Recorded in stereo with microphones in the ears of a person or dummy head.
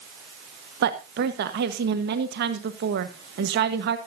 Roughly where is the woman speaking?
Right.